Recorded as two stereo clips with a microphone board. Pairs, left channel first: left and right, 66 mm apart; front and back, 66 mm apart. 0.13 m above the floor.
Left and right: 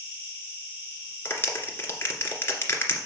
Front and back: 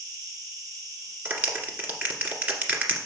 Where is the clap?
125° left, 1.8 m.